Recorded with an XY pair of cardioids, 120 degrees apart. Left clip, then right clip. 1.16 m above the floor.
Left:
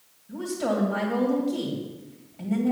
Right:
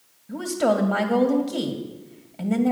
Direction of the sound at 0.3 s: 45° right.